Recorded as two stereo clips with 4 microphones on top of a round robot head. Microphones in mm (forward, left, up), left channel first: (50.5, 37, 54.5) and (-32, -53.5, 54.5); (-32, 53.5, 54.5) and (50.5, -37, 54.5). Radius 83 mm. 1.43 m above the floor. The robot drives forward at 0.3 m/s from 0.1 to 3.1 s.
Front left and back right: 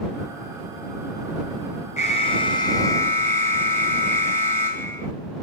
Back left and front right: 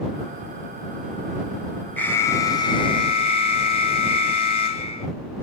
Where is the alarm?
60° left, 0.6 m; by 5.1 s 115° left, 0.6 m.